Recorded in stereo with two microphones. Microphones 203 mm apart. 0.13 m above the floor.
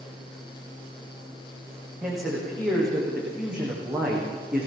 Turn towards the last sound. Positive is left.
turn(degrees=-5)  # may be behind; listen again after turning